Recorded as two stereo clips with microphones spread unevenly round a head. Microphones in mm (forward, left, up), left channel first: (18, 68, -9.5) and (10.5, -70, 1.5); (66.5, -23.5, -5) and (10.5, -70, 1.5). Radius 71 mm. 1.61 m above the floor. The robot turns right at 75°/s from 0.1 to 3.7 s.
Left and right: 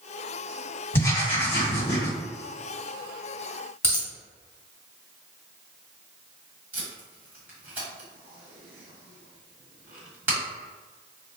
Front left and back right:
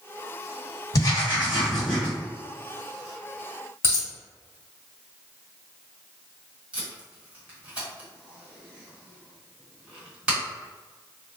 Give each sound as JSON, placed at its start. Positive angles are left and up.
{"t": 0.9, "sound": "writing", "azimuth_deg": 15, "distance_m": 2.0}
{"t": 3.8, "sound": "a dropped coin", "azimuth_deg": 15, "distance_m": 1.5}
{"t": 6.7, "sound": "tape being pulled", "azimuth_deg": -135, "distance_m": 1.5}